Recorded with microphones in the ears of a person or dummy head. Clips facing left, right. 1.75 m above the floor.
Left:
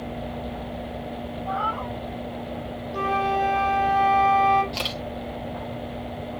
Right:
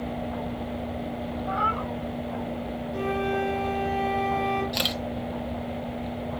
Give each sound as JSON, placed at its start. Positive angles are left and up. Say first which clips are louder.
{"t": 1.4, "sound": "a cat meowing", "louder": "left 2 dB", "side_deg": -35, "distance_m": 3.0}
{"t": 2.9, "sound": "a flute", "louder": "left 2 dB", "side_deg": 0, "distance_m": 3.0}
{"t": 4.7, "sound": "a camera shutter", "louder": "right 1 dB", "side_deg": -20, "distance_m": 1.2}